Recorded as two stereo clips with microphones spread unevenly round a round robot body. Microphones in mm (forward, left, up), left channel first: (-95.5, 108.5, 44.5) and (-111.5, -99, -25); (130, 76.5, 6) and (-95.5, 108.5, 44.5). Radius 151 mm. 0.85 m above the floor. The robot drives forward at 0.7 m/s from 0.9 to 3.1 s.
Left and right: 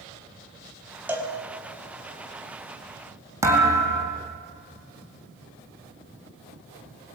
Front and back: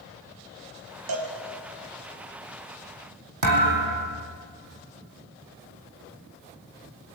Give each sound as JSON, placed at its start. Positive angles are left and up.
{"t": 1.1, "sound": "a cowbell", "azimuth_deg": -175, "distance_m": 4.5}
{"t": 3.4, "sound": "a thud", "azimuth_deg": -175, "distance_m": 4.5}